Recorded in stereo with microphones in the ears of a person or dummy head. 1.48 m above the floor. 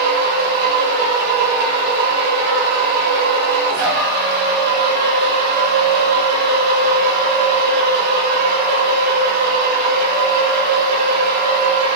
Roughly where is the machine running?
Right.